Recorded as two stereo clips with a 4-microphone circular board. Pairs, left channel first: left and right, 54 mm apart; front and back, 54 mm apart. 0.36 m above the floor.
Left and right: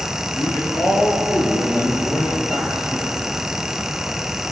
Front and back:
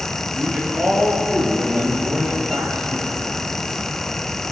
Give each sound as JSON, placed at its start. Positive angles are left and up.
{"t": 0.3, "sound": "a man speaking", "azimuth_deg": 115, "distance_m": 8.5}